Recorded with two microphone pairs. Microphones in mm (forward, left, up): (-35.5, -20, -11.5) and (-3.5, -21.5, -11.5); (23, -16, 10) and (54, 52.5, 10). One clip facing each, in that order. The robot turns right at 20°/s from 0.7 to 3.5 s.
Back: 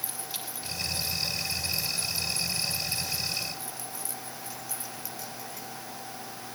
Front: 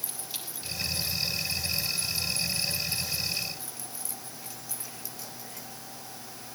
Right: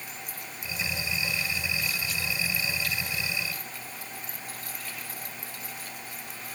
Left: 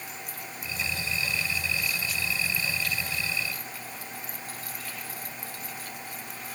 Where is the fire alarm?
No fire alarm in this recording.